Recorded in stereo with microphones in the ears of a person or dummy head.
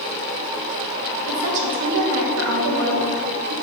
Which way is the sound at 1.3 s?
65° right (ahead or behind).